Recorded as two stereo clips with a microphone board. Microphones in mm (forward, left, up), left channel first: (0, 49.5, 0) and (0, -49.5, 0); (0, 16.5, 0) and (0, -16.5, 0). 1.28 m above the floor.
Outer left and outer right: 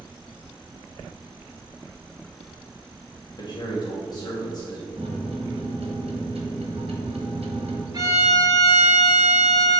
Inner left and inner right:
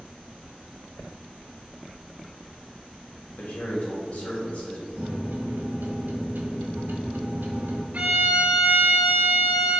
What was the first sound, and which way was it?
A man speaking, 45° left (ahead or behind).